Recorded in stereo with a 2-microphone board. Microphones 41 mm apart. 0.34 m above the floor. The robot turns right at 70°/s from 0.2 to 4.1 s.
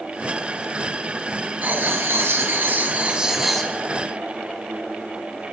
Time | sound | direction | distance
1.6 | writing | 135° right | 1.7 m